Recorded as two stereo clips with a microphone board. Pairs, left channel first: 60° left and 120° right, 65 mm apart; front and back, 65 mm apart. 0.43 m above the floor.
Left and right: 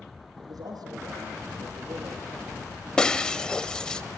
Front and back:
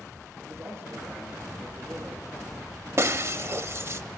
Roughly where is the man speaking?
Behind right.